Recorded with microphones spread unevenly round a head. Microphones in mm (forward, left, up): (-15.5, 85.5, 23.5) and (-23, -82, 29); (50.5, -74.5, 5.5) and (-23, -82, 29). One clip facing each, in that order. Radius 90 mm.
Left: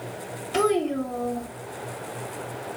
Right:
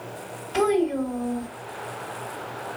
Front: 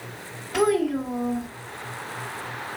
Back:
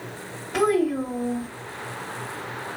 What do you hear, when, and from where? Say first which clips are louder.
0.5 s a child speaking: right 1 dB, even; 105° left, 1.9 m